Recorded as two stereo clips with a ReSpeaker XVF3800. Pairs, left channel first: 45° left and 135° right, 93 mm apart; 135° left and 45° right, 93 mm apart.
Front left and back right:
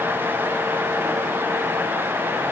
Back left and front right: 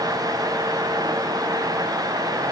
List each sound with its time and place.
Only background noise.